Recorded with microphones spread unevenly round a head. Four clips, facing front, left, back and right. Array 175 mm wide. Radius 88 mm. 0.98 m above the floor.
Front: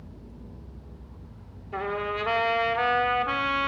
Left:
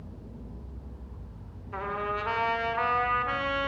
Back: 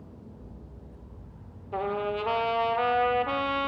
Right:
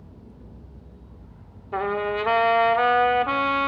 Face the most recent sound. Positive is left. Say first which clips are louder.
# right 7 dB, back 1 dB
turn(degrees=-105)